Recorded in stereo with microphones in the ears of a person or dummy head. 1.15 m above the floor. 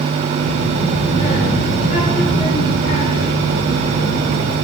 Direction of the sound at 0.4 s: 40° left (ahead or behind).